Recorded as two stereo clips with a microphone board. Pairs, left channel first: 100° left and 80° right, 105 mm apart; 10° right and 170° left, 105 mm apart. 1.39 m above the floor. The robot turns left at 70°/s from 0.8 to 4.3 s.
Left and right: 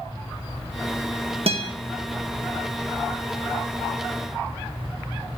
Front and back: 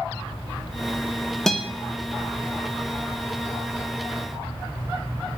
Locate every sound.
1.5 s a guitar: 100° right, 2 m; by 1.7 s 115° right, 2 m